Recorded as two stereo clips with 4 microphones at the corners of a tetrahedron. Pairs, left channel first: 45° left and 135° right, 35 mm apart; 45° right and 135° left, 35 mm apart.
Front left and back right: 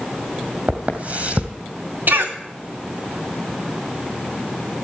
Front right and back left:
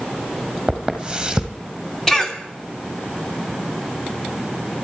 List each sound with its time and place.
0.7 s footsteps: 160° right, 2 m
2.1 s a cough: 120° right, 3 m